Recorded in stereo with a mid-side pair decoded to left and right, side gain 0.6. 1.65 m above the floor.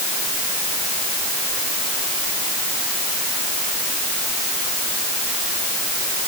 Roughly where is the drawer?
I don't hear a drawer.